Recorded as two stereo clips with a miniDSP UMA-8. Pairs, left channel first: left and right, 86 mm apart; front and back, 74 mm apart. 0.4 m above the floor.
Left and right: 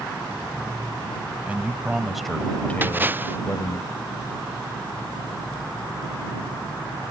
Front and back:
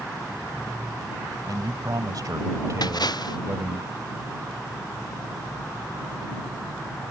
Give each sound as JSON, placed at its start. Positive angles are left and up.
{"t": 1.5, "sound": "a man speaking", "azimuth_deg": -160}
{"t": 2.8, "sound": "a splash", "azimuth_deg": -25}